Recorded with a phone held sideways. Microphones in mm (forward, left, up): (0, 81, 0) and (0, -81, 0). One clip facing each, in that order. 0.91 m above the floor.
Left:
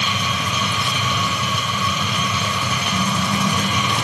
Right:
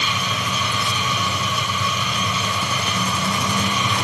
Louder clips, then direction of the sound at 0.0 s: Left 1 dB; 65° left (ahead or behind).